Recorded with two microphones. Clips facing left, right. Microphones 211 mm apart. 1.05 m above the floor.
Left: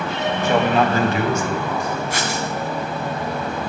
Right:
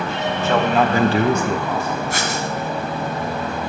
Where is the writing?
55° right (ahead or behind), 2 m.